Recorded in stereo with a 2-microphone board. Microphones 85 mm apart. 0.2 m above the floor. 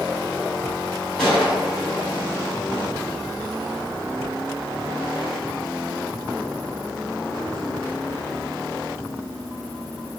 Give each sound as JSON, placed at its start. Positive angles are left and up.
{"t": 1.2, "sound": "a gunshot", "side_deg": 5, "distance_m": 1.9}